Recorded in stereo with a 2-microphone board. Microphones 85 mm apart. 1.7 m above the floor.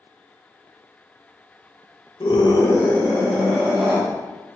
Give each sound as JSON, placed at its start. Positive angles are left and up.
{"t": 2.2, "sound": "a scream", "side_deg": 65, "distance_m": 0.7}